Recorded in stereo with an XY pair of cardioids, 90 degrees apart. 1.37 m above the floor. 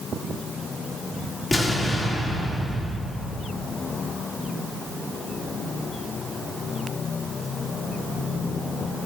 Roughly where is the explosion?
Ahead left.